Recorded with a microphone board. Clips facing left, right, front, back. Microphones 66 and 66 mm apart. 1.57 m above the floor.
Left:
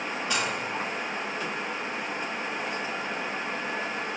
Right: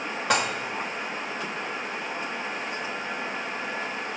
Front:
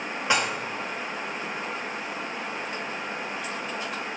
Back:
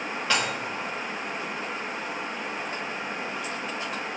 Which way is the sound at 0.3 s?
70° right.